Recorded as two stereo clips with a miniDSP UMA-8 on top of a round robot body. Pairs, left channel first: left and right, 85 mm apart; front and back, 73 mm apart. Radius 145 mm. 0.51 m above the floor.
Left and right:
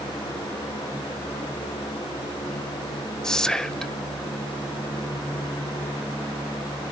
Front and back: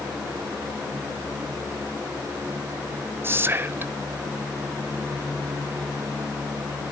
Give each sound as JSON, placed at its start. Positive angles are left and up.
{"t": 3.2, "sound": "whispering", "azimuth_deg": 165, "distance_m": 0.8}